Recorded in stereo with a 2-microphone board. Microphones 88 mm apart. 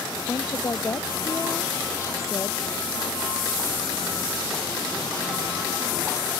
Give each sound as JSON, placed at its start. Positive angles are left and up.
{"t": 0.3, "sound": "a woman speaking", "side_deg": 35}